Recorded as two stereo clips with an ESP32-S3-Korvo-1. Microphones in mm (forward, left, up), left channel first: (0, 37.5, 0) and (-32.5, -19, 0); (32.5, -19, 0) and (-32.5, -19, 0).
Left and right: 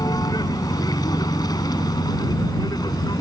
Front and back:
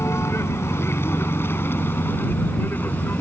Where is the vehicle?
45° left; by 3.2 s 60° left.